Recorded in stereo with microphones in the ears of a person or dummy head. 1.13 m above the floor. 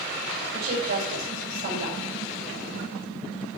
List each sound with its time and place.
0.5 s a woman speaking: 75° right (ahead or behind), 3.5 m